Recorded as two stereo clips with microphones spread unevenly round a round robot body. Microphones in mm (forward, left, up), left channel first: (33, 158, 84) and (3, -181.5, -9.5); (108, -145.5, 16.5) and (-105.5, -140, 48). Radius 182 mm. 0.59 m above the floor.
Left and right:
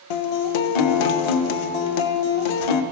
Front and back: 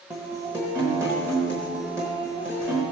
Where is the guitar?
95° left, 0.7 m.